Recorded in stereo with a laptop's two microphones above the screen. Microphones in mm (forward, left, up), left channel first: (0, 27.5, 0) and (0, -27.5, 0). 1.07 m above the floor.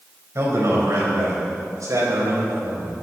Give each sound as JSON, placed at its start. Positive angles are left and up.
{"t": 0.3, "sound": "a man speaking", "side_deg": -60, "distance_m": 4.5}